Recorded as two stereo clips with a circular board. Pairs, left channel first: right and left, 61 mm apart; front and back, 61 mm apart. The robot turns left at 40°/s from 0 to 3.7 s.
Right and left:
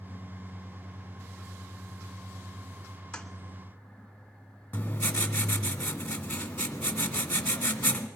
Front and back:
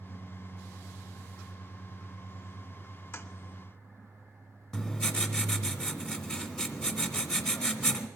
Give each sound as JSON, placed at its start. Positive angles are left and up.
{"t": 3.1, "sound": "a toilet flushing", "azimuth_deg": -20, "distance_m": 0.7}
{"t": 4.7, "sound": "writing", "azimuth_deg": -65, "distance_m": 0.8}